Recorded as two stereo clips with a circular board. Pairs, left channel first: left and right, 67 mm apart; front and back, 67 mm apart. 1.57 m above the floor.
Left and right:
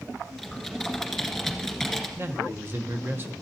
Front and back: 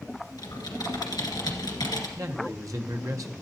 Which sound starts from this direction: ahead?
Typing on a keyboard, at 0.4 s.